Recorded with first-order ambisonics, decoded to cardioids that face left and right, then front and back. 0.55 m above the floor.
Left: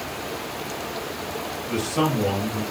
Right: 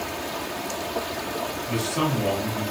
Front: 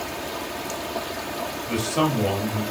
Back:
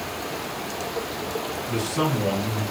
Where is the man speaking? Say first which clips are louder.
Left 3 dB, front 2 dB; straight ahead, 1.7 m.